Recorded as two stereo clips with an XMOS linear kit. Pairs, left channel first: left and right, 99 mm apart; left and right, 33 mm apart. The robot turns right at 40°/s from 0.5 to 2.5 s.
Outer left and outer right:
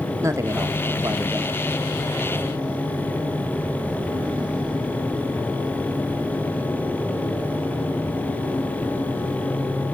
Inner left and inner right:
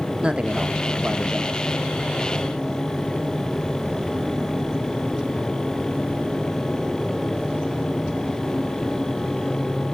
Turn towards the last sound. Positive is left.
turn(degrees=-10)